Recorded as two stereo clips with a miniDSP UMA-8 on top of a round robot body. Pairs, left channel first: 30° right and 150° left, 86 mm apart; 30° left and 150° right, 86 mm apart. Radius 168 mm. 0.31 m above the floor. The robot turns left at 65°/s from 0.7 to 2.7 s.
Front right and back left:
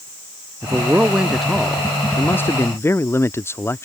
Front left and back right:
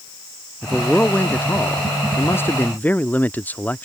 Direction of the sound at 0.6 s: 110° left.